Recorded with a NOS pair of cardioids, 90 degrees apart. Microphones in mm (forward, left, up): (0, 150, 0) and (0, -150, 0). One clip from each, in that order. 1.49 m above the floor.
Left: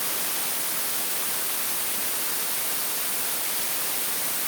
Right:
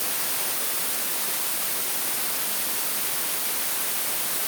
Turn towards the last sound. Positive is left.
No sound to turn to.